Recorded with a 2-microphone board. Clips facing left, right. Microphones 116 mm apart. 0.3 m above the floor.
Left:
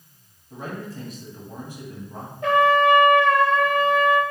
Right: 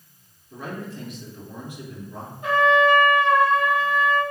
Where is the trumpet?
70° left (ahead or behind), 1.1 m.